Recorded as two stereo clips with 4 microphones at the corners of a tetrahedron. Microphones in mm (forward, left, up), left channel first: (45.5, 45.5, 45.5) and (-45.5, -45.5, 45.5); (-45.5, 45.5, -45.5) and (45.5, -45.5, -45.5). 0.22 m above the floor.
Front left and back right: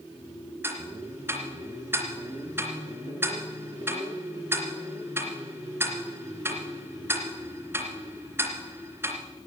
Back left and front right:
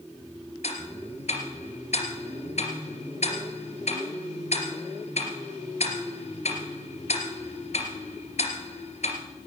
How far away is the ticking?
About 2.5 m.